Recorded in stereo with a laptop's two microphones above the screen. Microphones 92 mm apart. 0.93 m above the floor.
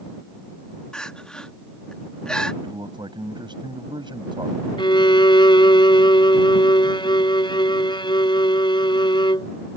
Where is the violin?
60° left (ahead or behind).